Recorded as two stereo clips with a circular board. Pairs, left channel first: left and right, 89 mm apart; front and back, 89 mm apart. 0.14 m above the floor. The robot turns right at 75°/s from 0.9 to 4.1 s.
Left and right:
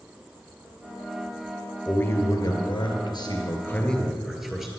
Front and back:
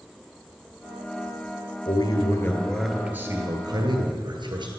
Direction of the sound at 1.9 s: 15° left.